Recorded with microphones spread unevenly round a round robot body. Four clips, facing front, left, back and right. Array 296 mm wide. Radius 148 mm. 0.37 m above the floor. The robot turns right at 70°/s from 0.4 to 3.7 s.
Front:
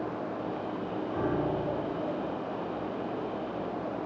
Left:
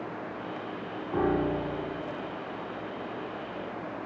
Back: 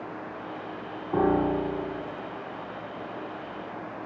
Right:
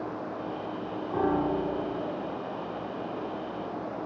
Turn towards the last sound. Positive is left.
turn(degrees=-5)